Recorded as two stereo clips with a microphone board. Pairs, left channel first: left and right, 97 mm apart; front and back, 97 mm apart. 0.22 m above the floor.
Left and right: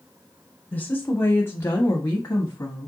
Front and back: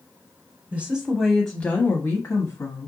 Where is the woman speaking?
130° left, 1.0 m; by 2.9 s 35° left, 1.4 m.